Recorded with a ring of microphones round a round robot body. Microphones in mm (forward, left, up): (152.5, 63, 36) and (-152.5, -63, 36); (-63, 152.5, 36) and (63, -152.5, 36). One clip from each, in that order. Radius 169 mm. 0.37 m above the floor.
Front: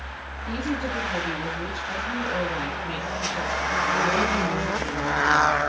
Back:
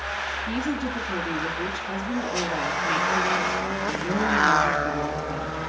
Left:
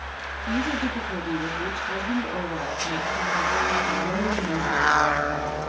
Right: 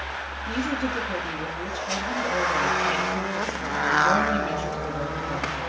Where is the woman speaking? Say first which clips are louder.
Back 1 dB, left 1 dB; 75° right, 9 m.